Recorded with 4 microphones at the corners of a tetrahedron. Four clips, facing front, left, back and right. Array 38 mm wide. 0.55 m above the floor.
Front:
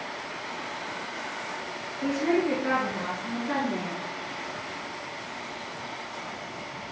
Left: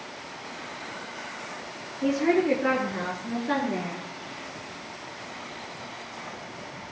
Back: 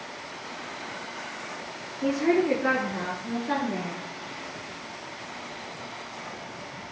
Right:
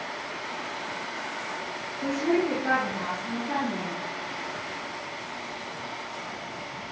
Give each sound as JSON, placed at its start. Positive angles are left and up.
{"t": 2.0, "sound": "a woman speaking", "azimuth_deg": 120, "distance_m": 8.0}